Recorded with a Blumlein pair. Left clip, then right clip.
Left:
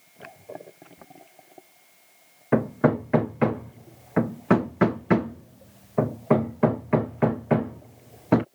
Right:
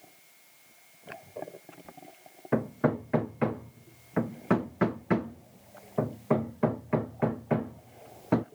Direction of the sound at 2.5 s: 20° left.